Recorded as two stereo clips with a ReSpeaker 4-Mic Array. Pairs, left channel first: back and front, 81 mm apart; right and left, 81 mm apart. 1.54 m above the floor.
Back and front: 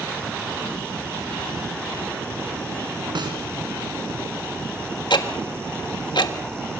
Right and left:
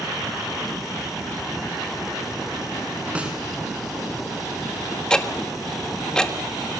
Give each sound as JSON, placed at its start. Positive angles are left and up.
{"t": 3.1, "sound": "a snare drum", "azimuth_deg": 15, "distance_m": 5.0}
{"t": 5.1, "sound": "ticking", "azimuth_deg": -170, "distance_m": 1.8}